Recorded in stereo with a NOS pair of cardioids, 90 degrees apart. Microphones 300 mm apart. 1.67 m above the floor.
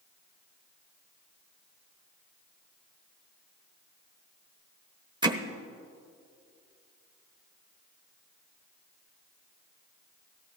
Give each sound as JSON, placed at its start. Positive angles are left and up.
{"t": 5.2, "sound": "hammering", "azimuth_deg": -15, "distance_m": 1.1}